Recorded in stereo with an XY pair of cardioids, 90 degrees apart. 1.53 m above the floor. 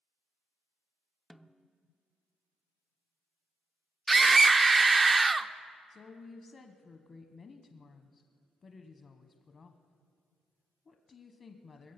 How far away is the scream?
About 0.7 m.